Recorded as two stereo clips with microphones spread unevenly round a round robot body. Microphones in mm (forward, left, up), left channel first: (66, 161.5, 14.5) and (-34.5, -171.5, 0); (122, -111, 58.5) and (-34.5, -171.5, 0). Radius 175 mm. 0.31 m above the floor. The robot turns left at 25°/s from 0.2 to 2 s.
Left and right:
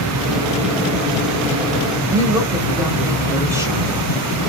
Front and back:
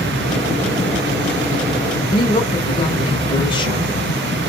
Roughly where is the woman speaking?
Ahead right.